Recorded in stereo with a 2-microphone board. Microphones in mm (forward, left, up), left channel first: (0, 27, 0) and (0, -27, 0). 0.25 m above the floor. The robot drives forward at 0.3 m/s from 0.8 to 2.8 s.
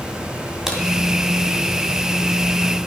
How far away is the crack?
About 2 m.